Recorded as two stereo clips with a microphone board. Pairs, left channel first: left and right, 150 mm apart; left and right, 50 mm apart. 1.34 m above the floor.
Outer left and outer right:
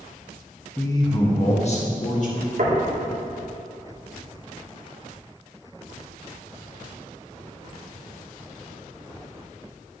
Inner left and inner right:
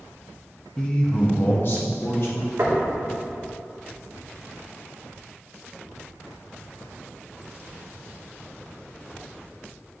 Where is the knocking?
65° right (ahead or behind), 2 m.